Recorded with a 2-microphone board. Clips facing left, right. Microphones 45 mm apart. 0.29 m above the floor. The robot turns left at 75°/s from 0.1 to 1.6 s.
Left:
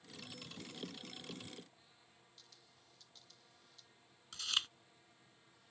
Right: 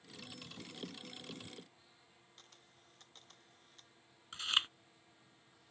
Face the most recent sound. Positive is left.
turn(degrees=-30)  # may be behind; listen again after turning